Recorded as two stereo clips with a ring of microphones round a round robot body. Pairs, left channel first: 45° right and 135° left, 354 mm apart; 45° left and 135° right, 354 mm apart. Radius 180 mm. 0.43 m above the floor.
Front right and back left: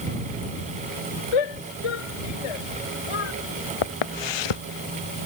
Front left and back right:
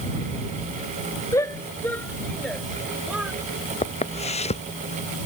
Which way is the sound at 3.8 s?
30° right.